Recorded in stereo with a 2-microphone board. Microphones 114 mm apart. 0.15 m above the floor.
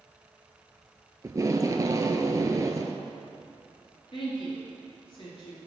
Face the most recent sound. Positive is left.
turn(degrees=50)  # may be behind; listen again after turning